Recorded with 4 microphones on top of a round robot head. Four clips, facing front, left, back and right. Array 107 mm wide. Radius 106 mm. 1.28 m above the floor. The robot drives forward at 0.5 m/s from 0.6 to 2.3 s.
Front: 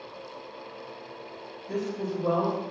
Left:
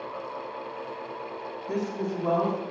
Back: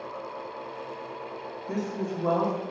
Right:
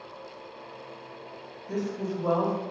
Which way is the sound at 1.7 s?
140° left.